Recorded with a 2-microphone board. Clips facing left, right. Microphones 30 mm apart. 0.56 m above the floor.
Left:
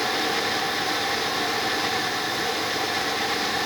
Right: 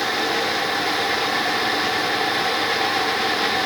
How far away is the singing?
No singing in this recording.